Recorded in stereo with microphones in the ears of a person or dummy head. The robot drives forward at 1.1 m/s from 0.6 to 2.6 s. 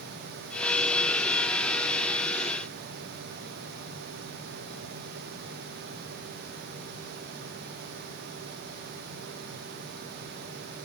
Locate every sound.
Only background noise.